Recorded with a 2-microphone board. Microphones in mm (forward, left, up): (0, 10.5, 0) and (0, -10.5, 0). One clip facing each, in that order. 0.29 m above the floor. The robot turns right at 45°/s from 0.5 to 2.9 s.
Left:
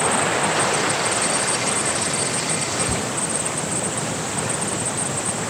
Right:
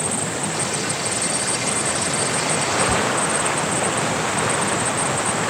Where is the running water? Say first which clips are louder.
Left 5 dB; 120° left; by 5.5 s 135° right.